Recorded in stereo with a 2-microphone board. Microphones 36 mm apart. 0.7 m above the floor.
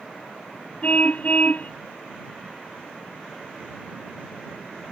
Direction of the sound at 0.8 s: 45° left (ahead or behind).